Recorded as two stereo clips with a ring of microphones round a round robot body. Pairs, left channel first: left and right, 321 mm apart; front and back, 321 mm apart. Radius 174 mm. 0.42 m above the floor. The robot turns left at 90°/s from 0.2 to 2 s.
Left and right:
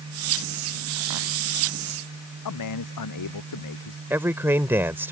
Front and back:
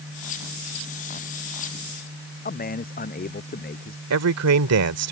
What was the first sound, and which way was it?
A man speaking, 65° left.